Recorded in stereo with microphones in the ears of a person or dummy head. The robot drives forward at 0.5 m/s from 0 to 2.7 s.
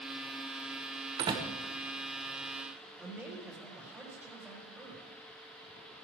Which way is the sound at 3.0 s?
10° right (ahead or behind).